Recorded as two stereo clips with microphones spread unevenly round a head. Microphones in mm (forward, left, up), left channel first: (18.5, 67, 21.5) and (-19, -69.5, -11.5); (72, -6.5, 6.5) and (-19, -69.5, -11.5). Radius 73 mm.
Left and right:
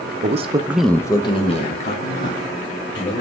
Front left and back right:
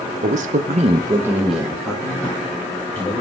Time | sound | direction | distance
0.2 | a man speaking | 140° right | 0.9 m